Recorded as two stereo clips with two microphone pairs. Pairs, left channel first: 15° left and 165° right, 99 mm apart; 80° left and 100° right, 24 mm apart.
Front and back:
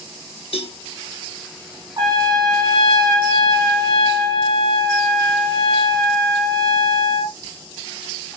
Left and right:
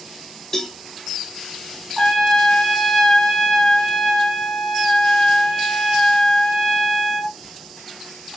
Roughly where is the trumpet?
Behind left.